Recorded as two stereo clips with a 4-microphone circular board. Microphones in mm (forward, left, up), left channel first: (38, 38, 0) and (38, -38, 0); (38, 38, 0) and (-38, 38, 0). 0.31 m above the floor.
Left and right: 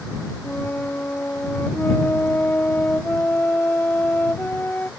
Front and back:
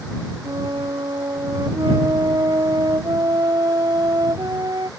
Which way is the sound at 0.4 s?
155° left.